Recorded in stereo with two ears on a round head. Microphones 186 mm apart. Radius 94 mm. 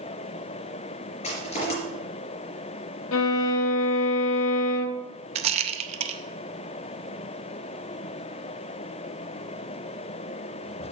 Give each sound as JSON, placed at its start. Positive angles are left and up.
{"t": 1.2, "sound": "crushing", "side_deg": 35, "distance_m": 4.0}
{"t": 3.1, "sound": "a violin", "side_deg": 75, "distance_m": 0.6}
{"t": 5.3, "sound": "a rattle", "side_deg": -30, "distance_m": 0.5}